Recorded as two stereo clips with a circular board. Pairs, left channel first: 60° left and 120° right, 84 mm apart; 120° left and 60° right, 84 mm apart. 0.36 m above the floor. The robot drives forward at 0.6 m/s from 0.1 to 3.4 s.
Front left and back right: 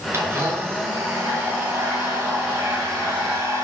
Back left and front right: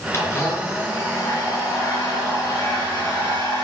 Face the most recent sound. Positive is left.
turn(degrees=180)